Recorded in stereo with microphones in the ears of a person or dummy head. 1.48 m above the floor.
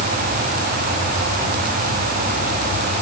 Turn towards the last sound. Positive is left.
No sound to turn to.